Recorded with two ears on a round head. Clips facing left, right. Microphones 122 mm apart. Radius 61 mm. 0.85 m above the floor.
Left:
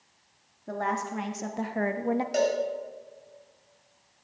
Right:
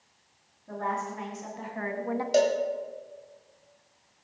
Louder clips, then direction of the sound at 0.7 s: Left 2 dB; 70° left (ahead or behind).